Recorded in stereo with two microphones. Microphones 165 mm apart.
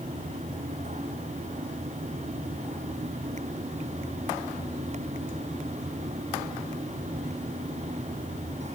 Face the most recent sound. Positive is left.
No sound to turn to.